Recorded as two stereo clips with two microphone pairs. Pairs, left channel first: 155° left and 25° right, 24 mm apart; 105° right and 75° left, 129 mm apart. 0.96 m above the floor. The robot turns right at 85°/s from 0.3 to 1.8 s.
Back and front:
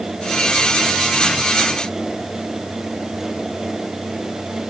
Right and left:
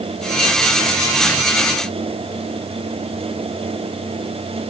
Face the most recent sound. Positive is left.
No sound to turn to.